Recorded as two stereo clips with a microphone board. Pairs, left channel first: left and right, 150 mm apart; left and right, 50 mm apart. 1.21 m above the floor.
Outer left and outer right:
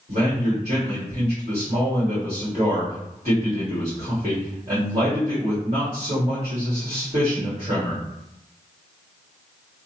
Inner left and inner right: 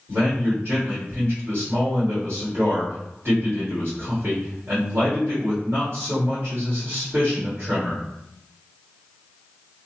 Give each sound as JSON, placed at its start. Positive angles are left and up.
{"t": 0.1, "sound": "a man speaking", "side_deg": -45, "distance_m": 1.7}